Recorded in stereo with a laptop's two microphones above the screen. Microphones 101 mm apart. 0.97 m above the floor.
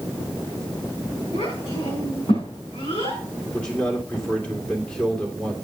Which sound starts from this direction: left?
A child speaking, at 1.3 s.